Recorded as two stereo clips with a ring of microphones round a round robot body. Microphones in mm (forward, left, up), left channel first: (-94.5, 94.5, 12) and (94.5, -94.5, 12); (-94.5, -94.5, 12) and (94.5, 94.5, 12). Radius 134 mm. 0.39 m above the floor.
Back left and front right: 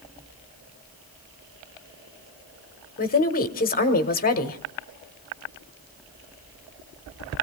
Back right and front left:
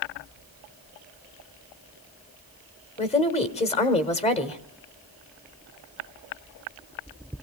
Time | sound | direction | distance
3.0 | a woman speaking | 170° left | 1.3 m